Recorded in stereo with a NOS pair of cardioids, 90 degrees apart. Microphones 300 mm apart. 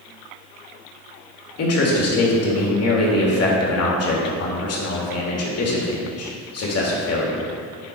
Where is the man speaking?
50° left, 2.5 m.